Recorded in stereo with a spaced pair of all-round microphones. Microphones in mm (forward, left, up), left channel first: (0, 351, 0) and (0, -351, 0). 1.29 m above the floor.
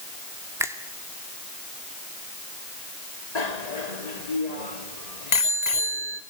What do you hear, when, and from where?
0.6 s a finger snap: 5° right (ahead or behind), 2.5 m
3.4 s a bicycle bell: 65° left (ahead or behind), 2 m